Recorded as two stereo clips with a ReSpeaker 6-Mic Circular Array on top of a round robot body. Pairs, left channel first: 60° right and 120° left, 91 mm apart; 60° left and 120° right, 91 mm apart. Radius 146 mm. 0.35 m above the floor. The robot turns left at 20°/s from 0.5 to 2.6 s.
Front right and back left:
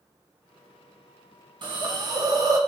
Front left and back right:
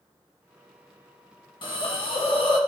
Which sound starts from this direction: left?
A hiss, at 1.6 s.